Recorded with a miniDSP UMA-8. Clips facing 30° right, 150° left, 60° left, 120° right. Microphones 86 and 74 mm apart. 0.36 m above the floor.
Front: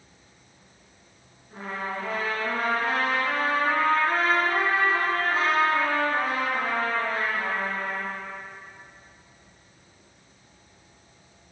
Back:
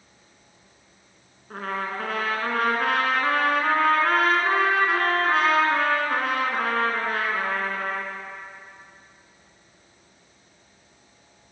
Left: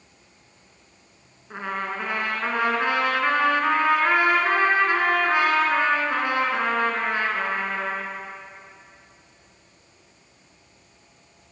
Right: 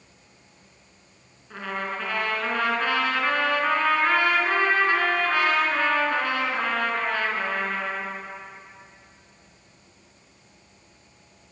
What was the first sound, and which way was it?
A trumpet, 130° left.